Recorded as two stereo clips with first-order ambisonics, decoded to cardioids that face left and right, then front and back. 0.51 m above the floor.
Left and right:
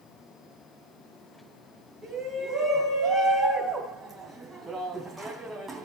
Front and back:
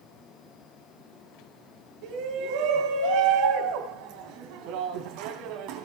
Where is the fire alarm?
No fire alarm in this recording.